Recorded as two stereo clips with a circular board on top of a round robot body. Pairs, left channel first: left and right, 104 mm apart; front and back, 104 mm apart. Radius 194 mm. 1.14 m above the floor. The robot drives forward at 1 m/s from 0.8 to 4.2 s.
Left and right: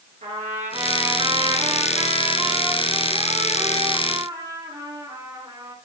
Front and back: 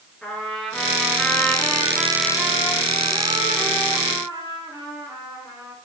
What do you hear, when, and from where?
0.2 s a trumpet: 85° right, 3.5 m; by 5.7 s 130° right, 4.5 m